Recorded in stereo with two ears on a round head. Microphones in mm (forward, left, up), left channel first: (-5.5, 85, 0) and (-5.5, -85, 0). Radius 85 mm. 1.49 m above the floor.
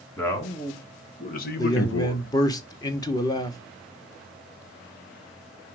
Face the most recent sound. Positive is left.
turn(degrees=20)  # may be behind; listen again after turning